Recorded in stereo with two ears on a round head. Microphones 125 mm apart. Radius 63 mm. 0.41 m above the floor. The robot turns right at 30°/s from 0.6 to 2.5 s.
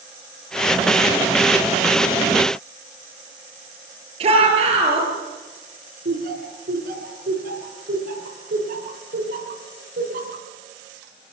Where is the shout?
45° right (ahead or behind), 8 m.